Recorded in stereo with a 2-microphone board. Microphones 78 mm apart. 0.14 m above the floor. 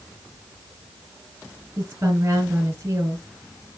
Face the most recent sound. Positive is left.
turn(degrees=-35)  # may be behind; listen again after turning